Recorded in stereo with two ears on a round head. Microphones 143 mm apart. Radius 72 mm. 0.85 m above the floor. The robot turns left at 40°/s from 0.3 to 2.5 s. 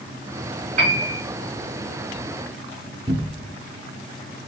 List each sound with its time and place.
0.8 s a piano: 55° right (ahead or behind), 2.5 m; by 1.2 s 35° right (ahead or behind), 2.5 m
3.1 s a cupboard door: 30° right (ahead or behind), 0.6 m